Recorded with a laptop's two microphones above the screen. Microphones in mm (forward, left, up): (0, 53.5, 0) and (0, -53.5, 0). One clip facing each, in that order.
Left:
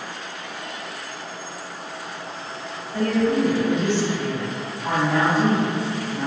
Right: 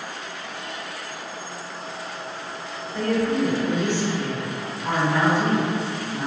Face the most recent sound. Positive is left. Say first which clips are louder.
# left 2 dB
turn(degrees=50)  # may be behind; listen again after turning